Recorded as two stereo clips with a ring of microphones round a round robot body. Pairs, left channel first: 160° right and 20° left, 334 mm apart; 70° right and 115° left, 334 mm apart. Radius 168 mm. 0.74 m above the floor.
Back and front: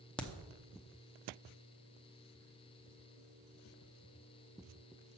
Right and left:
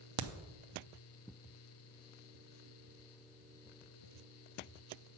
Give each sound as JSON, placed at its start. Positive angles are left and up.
{"t": 0.2, "sound": "a crack", "azimuth_deg": 115, "distance_m": 0.7}